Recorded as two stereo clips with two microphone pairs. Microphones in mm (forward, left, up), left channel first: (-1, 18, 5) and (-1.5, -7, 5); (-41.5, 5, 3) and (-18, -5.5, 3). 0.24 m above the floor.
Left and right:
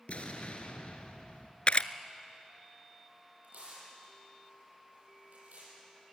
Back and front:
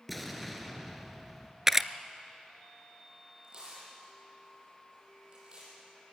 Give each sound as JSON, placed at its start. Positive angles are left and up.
{"t": 0.1, "sound": "an explosion", "azimuth_deg": 65, "distance_m": 2.0}
{"t": 1.7, "sound": "a camera shutter", "azimuth_deg": 50, "distance_m": 0.5}
{"t": 3.4, "sound": "tearing paper", "azimuth_deg": -80, "distance_m": 8.0}